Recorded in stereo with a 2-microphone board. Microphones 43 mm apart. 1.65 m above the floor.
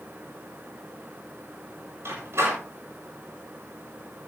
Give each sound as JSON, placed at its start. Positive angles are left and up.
{"t": 2.0, "sound": "a door slam", "side_deg": -75, "distance_m": 7.0}